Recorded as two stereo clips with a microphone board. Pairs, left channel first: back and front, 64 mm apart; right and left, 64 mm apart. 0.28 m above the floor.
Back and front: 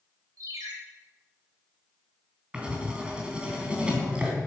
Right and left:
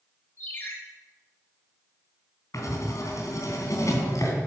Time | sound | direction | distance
0.4 | a ringtone | 30° right | 3.5 m
2.5 | writing | 75° right | 3 m